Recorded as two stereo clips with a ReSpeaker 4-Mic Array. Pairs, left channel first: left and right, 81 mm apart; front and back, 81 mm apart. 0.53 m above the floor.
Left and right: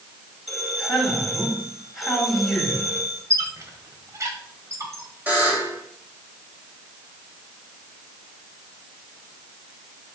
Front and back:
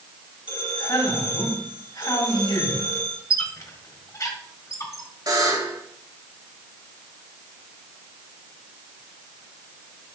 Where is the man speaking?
Straight ahead, 3.5 m.